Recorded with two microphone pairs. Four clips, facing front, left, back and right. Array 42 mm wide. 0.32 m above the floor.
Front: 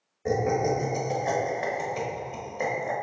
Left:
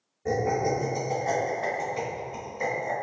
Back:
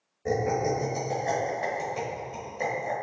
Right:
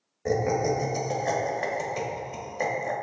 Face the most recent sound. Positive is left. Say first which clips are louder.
# right 1 dB, front 1 dB
turn(degrees=-60)